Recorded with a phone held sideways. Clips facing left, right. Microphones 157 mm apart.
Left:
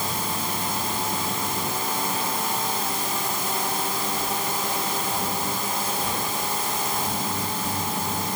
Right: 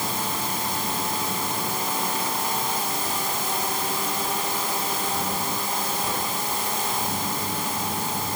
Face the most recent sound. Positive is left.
No sound to turn to.